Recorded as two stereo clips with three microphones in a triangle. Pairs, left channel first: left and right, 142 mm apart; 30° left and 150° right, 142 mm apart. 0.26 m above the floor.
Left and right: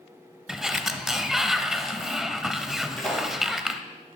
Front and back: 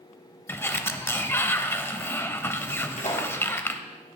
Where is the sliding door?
10° right, 0.7 m.